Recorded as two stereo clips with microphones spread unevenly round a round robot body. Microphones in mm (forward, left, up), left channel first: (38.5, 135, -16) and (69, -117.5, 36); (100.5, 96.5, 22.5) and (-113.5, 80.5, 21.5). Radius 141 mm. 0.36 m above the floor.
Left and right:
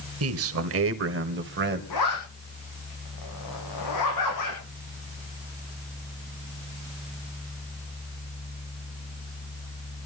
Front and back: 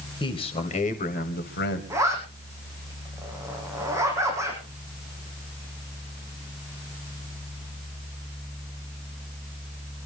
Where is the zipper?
110° left, 7.5 m.